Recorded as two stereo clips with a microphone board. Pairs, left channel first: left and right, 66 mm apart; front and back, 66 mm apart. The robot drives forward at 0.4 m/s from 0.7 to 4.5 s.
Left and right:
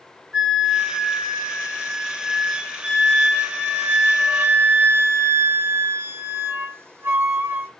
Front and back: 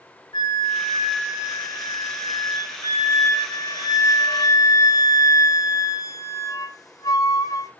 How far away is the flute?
About 2 m.